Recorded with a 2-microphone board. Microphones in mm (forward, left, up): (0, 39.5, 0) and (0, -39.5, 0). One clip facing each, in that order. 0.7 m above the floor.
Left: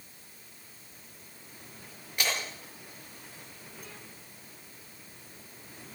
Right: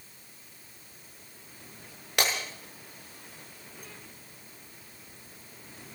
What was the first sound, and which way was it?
Breaking glass, 85° right.